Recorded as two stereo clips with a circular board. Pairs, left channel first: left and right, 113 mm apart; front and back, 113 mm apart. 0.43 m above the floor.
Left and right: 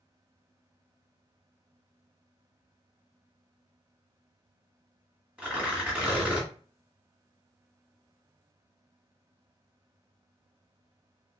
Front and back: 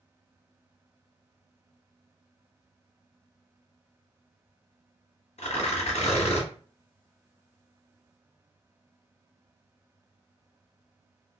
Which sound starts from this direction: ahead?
Tearing paper, at 5.4 s.